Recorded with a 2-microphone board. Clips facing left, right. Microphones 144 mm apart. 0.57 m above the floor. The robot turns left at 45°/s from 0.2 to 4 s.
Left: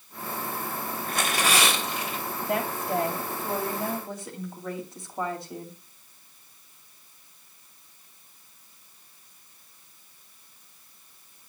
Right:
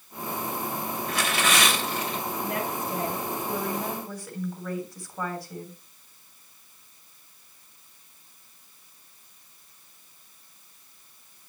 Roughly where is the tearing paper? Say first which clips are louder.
Even; ahead left.